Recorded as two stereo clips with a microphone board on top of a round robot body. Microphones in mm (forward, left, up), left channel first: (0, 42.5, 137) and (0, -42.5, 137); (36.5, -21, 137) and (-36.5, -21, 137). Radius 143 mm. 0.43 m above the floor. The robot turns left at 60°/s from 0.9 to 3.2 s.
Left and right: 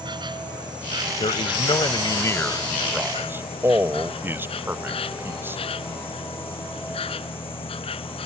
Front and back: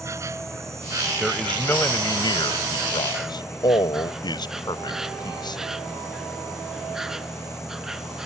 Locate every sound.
0.0 s an insect: 125° right; by 8.3 s 95° left
1.2 s a man speaking: 95° left; by 5.6 s 25° right